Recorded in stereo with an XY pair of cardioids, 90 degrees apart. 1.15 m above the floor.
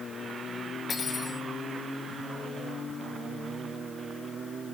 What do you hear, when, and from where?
0.9 s cutlery clinking: 45° left, 2.5 m